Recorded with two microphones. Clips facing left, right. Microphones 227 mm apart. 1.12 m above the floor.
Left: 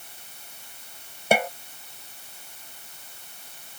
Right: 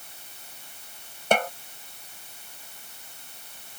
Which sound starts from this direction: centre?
A snare drum, at 1.3 s.